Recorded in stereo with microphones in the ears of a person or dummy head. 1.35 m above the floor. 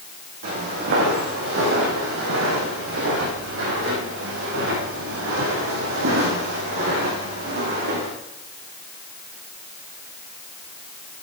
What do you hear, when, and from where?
0.4 s footsteps: 55° right (ahead or behind), 3.5 m